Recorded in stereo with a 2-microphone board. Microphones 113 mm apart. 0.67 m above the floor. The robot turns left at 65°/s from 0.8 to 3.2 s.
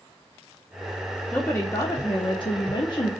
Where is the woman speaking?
170° left, 0.7 m; by 3.1 s 50° left, 0.7 m.